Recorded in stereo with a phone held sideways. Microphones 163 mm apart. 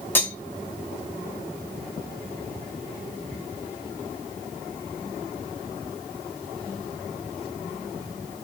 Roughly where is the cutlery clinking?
Centre.